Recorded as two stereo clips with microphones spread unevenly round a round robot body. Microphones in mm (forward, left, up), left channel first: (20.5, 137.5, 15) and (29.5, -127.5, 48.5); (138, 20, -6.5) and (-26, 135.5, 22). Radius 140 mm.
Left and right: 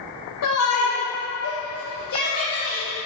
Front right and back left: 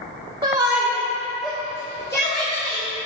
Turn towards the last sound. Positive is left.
turn(degrees=30)